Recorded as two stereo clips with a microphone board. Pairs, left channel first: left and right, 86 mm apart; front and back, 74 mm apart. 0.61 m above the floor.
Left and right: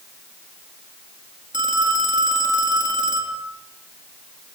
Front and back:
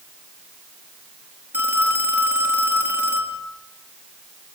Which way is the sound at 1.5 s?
115° right.